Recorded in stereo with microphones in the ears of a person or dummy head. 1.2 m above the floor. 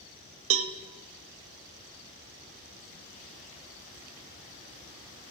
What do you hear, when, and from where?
0.5 s a cowbell: 65° right (ahead or behind), 0.5 m